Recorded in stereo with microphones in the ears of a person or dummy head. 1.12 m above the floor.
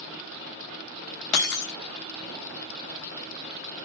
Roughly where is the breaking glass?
Left.